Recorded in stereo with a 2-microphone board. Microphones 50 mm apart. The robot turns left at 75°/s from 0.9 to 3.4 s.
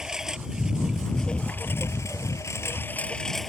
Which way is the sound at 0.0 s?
170° right.